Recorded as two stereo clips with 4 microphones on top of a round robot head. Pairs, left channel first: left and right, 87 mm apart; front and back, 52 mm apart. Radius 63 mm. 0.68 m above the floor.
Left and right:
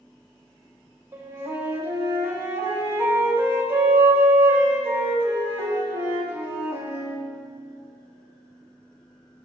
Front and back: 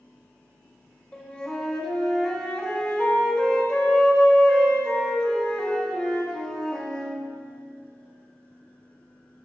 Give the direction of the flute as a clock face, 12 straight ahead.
2 o'clock.